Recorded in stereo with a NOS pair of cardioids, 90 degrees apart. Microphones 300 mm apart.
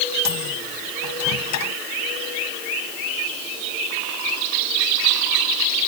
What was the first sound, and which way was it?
A microwave, 65° left.